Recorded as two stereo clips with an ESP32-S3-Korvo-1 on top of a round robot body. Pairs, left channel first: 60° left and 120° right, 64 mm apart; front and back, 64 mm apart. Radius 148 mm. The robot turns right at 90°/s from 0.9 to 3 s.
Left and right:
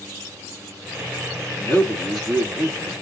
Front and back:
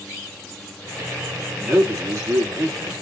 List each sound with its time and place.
1.6 s a man speaking: 95° left, 1.7 m; by 2.9 s 145° right, 1.7 m